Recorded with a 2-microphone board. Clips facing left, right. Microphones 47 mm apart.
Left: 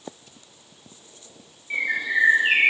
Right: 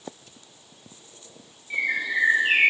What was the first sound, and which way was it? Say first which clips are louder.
A bird: left 1 dB; 30° left (ahead or behind).